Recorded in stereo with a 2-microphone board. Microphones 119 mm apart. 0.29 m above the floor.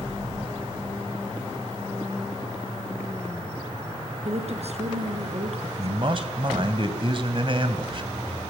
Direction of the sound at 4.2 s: 65° right (ahead or behind).